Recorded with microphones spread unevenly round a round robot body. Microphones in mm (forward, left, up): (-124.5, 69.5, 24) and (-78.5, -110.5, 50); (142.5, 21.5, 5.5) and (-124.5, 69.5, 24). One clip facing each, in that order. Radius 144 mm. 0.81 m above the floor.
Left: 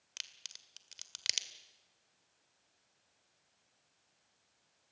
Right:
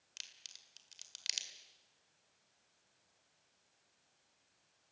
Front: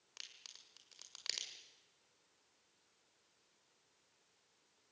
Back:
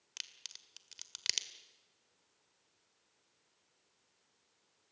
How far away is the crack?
About 1.8 m.